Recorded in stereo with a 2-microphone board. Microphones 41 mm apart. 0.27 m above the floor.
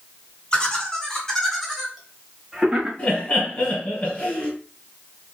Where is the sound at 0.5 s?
25° left (ahead or behind), 1.6 m; by 2.9 s 20° right (ahead or behind), 1.7 m.